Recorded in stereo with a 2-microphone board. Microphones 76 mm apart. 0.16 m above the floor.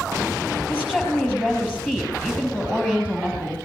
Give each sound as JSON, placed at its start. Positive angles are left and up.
{"t": 0.7, "sound": "a woman speaking", "side_deg": 15, "distance_m": 4.5}